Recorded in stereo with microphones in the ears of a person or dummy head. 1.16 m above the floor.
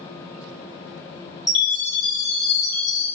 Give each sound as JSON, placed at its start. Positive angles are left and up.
{"t": 1.5, "sound": "a chime", "side_deg": 20, "distance_m": 1.2}